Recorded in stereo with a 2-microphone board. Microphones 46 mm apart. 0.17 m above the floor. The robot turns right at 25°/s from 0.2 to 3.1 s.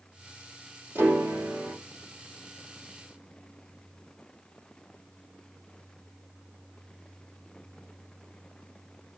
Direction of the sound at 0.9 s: 70° right (ahead or behind).